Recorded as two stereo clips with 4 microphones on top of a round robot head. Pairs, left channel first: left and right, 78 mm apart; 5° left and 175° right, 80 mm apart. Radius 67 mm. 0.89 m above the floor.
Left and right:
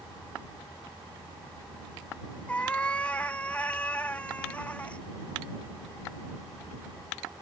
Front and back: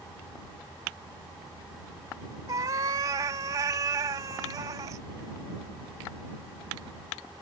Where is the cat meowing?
165° left.